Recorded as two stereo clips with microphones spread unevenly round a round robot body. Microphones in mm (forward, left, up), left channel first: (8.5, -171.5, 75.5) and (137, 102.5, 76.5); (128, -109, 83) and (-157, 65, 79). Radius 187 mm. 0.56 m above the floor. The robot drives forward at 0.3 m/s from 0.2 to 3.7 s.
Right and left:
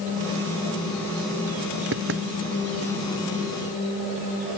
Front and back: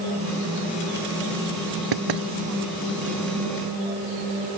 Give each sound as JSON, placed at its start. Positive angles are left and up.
{"t": 1.9, "sound": "knocking", "azimuth_deg": 120}